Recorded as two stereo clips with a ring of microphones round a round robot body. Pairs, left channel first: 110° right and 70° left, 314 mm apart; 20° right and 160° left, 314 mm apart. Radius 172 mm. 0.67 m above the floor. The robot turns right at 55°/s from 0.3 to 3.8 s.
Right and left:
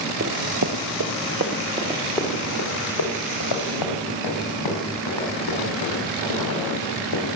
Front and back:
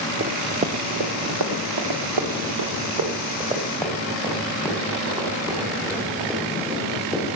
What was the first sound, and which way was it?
Running footsteps, 105° left.